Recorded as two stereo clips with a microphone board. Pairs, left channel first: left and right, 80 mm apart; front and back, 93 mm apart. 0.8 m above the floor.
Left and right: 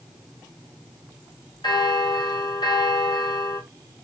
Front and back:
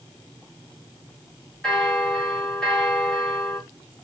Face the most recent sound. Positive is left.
turn(degrees=80)